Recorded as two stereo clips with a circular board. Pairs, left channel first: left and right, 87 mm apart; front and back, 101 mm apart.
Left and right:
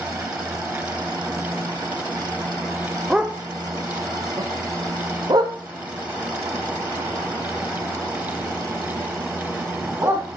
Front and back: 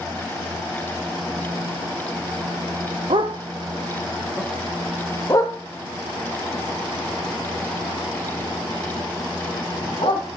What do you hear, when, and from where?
3.1 s a dog barking: 170° right, 1.0 m; by 10.2 s 30° right, 4.5 m